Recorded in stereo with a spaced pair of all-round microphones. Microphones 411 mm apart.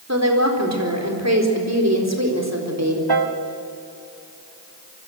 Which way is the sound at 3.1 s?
65° right (ahead or behind).